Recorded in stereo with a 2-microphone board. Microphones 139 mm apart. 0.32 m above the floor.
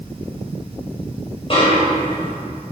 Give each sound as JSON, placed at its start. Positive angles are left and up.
{"t": 1.5, "sound": "a snare drum", "side_deg": 40, "distance_m": 1.9}